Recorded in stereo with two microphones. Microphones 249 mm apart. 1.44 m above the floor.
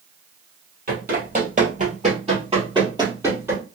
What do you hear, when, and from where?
0.9 s running footsteps: 40° right (ahead or behind), 1.8 m; by 3.6 s 10° right (ahead or behind), 1.8 m